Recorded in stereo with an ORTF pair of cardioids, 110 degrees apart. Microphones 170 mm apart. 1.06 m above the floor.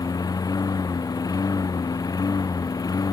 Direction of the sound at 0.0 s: 20° left.